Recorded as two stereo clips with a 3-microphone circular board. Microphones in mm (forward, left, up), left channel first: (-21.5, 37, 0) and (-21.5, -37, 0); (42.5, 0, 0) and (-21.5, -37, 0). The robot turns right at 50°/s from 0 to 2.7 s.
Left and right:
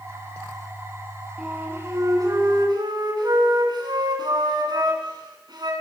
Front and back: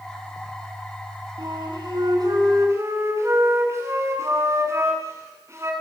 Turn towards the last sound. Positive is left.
turn(degrees=-100)